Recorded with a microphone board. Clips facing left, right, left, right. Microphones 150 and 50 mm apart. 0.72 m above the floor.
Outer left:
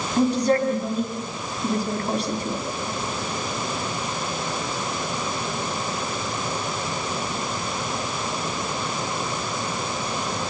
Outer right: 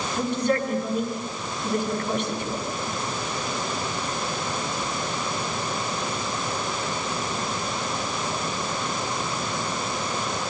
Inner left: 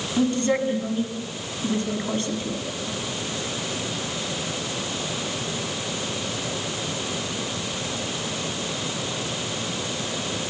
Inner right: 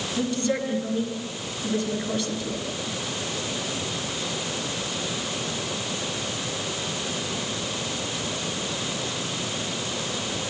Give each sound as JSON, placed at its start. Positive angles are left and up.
{"t": 0.2, "sound": "a woman speaking", "side_deg": 35, "distance_m": 6.5}